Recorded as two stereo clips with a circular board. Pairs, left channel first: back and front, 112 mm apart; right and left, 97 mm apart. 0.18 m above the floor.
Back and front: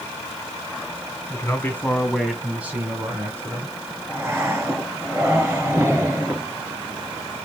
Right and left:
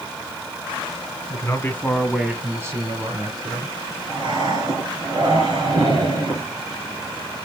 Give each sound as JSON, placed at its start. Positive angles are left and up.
{"t": 1.3, "sound": "a man speaking", "azimuth_deg": -125, "distance_m": 1.9}
{"t": 4.1, "sound": "breathing", "azimuth_deg": 65, "distance_m": 3.0}